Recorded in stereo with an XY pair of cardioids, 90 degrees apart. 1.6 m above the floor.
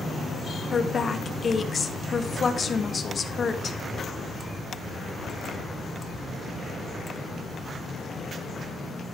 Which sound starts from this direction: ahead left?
A woman speaking, at 0.7 s.